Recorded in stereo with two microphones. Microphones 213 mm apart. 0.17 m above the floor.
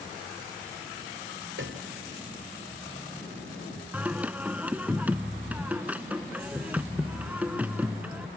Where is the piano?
65° right (ahead or behind).